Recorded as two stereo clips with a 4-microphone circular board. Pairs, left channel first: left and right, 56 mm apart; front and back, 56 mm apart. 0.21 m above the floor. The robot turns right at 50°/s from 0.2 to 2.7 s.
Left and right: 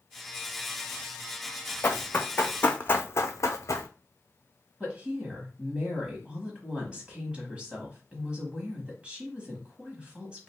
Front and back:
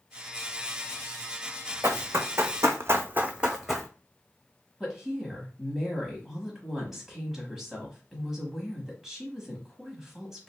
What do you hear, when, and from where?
1.8 s running footsteps: 135° left, 0.8 m; by 3.9 s 90° left, 0.7 m
4.8 s a woman speaking: 105° right, 1.0 m